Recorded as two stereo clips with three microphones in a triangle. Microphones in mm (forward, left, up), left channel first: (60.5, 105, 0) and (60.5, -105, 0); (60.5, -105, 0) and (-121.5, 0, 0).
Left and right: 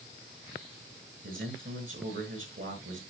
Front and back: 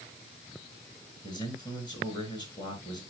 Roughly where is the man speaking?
Right.